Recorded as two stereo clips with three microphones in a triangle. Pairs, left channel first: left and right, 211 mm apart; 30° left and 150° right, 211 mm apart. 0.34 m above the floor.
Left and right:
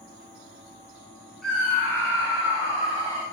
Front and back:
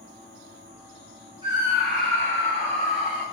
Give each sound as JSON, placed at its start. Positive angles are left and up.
{"t": 1.4, "sound": "a scream", "azimuth_deg": 175, "distance_m": 1.4}